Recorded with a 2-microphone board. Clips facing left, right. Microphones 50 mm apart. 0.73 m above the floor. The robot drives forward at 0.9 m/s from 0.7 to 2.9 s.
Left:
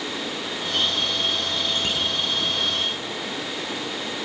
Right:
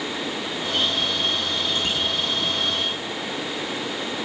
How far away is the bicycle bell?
About 10 m.